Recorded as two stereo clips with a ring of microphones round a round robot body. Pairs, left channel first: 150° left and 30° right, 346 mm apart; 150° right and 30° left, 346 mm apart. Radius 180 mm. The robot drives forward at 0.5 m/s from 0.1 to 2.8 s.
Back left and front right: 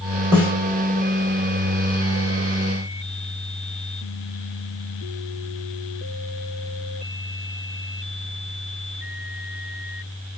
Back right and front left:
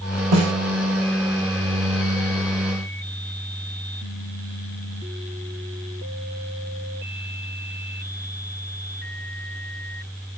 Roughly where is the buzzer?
I don't hear a buzzer.